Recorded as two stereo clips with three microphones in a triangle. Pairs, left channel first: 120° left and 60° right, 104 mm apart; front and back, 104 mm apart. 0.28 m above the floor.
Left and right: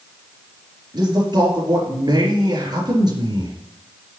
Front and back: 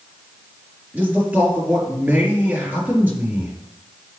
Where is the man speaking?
105° right, 4 m.